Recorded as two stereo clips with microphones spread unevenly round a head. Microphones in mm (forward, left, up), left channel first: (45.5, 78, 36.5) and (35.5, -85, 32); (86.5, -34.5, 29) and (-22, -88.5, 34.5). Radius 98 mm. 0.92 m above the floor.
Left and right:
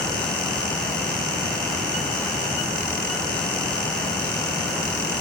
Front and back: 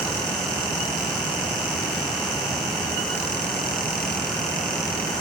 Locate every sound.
Only background noise.